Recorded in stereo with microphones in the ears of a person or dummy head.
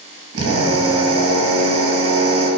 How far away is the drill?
About 4.5 m.